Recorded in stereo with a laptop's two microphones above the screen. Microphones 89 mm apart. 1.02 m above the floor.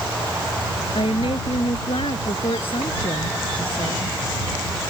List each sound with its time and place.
0.9 s a woman speaking: 90° left